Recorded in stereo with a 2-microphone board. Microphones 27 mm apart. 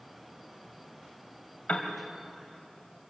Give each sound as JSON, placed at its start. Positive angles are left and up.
{"t": 1.7, "sound": "a piano", "side_deg": 55, "distance_m": 2.5}